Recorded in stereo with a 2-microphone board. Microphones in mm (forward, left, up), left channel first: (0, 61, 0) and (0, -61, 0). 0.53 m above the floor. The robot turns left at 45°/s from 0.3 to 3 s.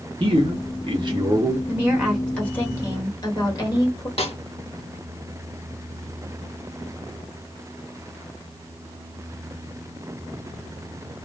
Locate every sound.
0.2 s a man speaking: 80° right, 0.9 m; by 1.6 s 140° right, 0.9 m
1.7 s a woman speaking: 155° right, 1.5 m; by 4.1 s 145° left, 1.5 m
4.2 s a snare drum: 55° left (ahead or behind), 0.6 m